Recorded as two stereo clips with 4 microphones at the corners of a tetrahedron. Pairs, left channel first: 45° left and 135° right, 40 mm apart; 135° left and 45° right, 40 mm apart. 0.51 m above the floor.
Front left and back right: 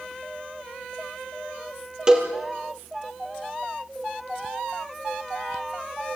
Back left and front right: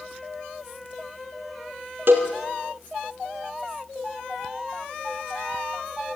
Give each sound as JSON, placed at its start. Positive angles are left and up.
{"t": 2.1, "sound": "a cowbell", "azimuth_deg": -65, "distance_m": 3.5}